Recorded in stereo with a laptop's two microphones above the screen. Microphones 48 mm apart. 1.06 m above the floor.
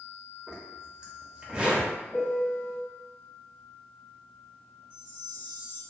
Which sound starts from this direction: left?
A chime, at 4.9 s.